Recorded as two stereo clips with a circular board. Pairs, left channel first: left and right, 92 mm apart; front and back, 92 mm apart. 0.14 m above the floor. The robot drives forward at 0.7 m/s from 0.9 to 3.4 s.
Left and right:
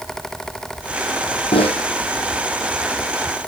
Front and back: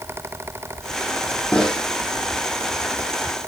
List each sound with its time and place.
1.5 s a snare drum: 80° left, 2 m; by 1.8 s 85° left, 2 m